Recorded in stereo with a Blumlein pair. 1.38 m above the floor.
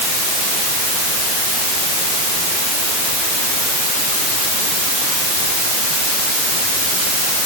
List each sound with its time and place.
Only background noise.